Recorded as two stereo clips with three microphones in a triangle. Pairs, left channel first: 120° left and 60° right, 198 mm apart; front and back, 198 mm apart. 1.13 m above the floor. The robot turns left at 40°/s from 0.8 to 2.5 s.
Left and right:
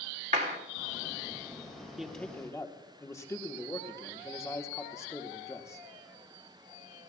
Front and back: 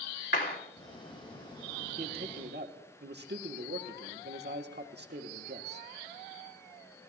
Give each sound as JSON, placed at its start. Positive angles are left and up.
{"t": 0.3, "sound": "a clap", "azimuth_deg": -10, "distance_m": 3.0}
{"t": 2.0, "sound": "a man speaking", "azimuth_deg": -145, "distance_m": 1.2}